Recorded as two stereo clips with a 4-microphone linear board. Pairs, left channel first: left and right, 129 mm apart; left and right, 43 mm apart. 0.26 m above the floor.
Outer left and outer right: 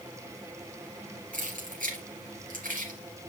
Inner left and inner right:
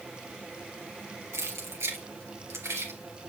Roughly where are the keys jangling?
Right.